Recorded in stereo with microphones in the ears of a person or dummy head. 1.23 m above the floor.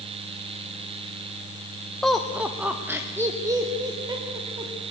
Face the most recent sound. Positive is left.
turn(degrees=-20)  # may be behind; listen again after turning